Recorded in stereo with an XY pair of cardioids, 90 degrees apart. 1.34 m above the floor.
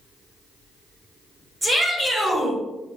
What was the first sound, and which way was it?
A shout, 35° right.